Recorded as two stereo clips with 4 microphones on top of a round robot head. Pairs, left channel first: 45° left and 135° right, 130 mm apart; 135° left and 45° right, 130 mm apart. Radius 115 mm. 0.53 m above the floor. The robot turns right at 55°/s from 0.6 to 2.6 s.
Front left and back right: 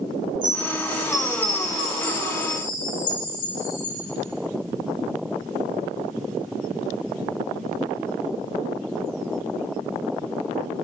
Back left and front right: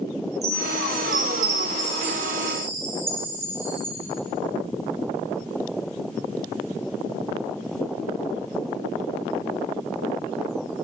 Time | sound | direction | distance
0.4 | a chime | 80° right | 3 m